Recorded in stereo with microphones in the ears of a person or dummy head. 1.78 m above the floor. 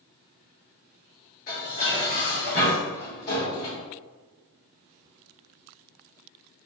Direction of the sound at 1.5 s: 45° left (ahead or behind).